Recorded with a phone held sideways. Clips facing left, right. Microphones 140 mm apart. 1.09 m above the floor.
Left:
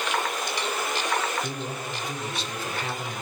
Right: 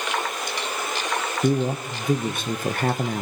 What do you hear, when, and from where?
1.4 s a man speaking: 50° right (ahead or behind), 0.7 m